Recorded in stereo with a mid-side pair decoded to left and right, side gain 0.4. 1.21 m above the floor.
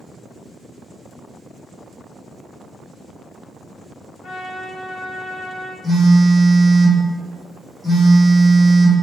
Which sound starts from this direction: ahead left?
A trumpet, at 4.2 s.